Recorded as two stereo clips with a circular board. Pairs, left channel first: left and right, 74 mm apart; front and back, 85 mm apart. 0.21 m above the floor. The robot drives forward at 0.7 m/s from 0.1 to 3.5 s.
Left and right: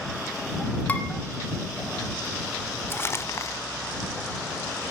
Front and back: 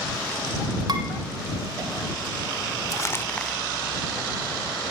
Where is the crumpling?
40° left, 0.7 m; by 3.6 s 85° left, 0.5 m.